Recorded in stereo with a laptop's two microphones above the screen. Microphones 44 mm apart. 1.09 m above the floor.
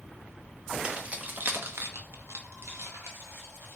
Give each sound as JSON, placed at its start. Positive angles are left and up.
{"t": 0.8, "sound": "keys jangling", "side_deg": -30, "distance_m": 0.7}